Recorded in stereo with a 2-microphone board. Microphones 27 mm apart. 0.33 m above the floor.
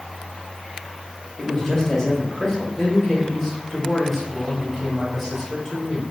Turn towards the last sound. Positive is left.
turn(degrees=0)  # may be behind; listen again after turning